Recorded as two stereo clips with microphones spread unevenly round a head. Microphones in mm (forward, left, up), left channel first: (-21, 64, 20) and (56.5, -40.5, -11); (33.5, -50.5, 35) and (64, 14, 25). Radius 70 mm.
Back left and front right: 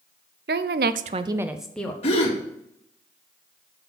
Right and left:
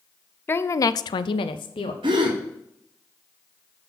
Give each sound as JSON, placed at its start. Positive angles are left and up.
{"t": 0.5, "sound": "a woman speaking", "azimuth_deg": -55, "distance_m": 0.8}
{"t": 2.0, "sound": "a gasp", "azimuth_deg": 95, "distance_m": 2.0}